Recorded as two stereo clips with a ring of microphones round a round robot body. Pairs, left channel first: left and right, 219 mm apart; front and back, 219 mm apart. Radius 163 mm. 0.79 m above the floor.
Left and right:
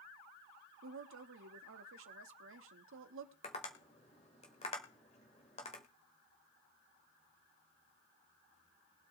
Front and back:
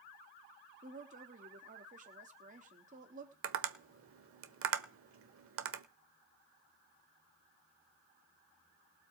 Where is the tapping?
160° left, 1.2 m.